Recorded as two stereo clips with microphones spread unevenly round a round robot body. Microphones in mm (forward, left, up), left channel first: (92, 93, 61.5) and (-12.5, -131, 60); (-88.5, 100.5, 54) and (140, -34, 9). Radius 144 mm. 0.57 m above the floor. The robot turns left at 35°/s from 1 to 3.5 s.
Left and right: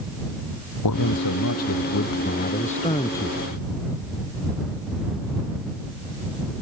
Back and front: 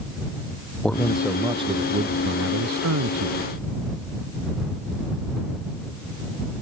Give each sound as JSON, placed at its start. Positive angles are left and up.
{"t": 0.8, "sound": "a man speaking", "azimuth_deg": 65}